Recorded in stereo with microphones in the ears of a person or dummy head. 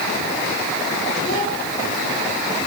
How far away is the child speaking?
About 10 m.